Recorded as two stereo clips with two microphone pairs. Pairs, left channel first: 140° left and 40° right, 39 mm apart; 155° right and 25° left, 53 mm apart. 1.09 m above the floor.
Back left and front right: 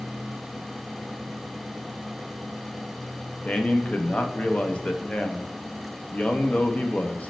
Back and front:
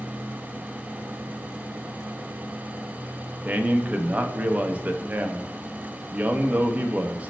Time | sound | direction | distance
3.5 | a man speaking | 85° left | 0.5 m